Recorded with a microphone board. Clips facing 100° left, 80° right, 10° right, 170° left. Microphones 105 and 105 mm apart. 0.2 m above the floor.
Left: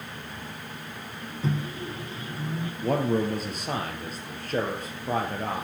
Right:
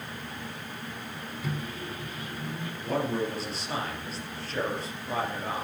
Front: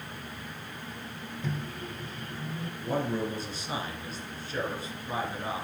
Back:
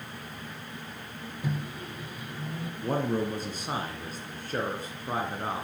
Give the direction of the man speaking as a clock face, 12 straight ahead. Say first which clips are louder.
Left 4 dB, back 2 dB; 7 o'clock.